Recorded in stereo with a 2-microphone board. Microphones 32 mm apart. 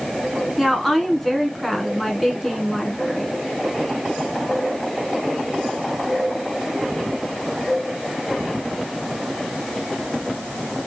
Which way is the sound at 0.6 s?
5° left (ahead or behind).